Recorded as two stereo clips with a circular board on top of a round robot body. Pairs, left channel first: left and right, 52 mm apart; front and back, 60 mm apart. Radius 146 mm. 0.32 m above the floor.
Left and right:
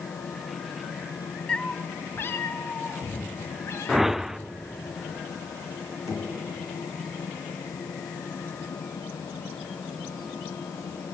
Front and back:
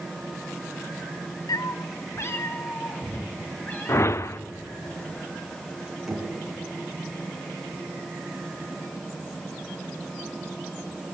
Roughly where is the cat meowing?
Ahead.